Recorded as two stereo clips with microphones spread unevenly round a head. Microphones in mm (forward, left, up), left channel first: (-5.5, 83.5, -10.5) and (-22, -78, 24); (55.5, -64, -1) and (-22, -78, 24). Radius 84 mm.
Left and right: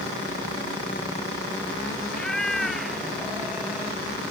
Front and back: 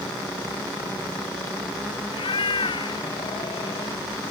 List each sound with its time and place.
2.1 s a cat meowing: 5° right; by 4.0 s 15° right